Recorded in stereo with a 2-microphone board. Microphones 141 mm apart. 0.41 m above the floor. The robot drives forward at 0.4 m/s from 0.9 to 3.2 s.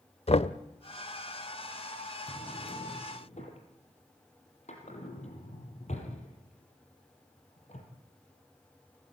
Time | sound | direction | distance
0.3 | knocking | 50° left (ahead or behind) | 0.8 m
2.3 | a drawer | 55° left (ahead or behind) | 4.5 m